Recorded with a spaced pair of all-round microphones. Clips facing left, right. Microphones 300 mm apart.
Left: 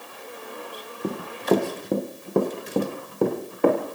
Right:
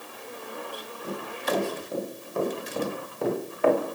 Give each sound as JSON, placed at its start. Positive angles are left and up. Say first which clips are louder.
{"t": 1.0, "sound": "running footsteps", "louder": "left 9 dB", "side_deg": 70, "distance_m": 4.0}